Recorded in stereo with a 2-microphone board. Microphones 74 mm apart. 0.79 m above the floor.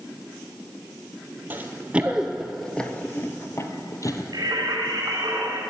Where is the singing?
65° right (ahead or behind), 3 m.